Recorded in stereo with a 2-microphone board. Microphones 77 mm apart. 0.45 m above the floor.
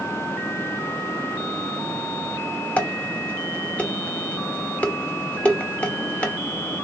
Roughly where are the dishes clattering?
Centre.